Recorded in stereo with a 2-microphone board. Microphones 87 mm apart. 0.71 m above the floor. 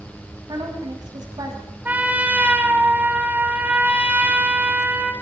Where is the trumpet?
15° right (ahead or behind), 2.5 m.